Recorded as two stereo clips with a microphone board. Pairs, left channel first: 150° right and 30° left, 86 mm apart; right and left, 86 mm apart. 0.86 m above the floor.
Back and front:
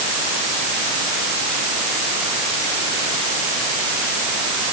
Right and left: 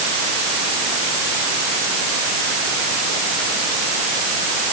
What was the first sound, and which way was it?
Only background noise.